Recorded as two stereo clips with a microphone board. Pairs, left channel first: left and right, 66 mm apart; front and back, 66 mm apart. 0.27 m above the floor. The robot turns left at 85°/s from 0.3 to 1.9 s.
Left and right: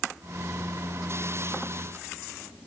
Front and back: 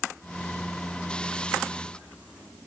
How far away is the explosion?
No explosion in this recording.